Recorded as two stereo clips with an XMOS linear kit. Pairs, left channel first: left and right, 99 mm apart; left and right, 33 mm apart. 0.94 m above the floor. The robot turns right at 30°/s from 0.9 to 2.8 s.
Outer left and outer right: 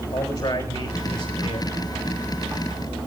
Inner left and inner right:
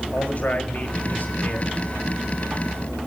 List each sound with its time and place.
0.1 s a man speaking: 60° left (ahead or behind), 3 m; by 1.7 s 80° left, 3 m